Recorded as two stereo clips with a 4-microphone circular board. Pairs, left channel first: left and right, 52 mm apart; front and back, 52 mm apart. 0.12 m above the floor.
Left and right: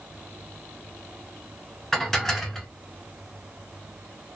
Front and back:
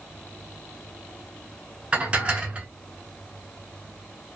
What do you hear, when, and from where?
1.9 s dishes clattering: 165° left, 0.8 m